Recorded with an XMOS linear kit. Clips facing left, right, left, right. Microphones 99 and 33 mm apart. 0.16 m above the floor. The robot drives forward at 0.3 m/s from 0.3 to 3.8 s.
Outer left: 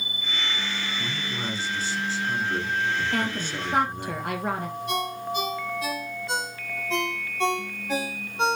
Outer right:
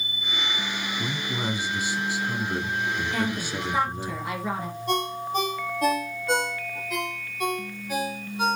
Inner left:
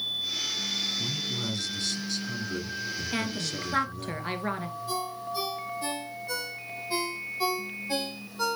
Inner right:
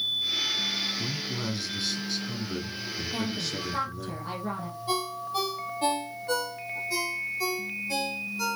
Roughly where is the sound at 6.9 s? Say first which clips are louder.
Outer left 5 dB, even; left.